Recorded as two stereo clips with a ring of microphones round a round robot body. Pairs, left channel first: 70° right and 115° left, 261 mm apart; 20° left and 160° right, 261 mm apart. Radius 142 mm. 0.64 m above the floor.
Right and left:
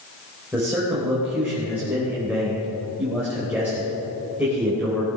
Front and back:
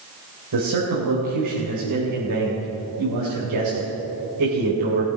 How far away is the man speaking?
About 3.5 m.